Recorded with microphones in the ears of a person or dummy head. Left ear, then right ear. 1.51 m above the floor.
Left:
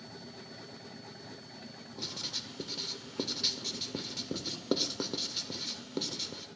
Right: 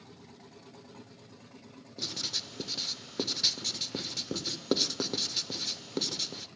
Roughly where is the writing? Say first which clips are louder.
Right 4 dB; centre.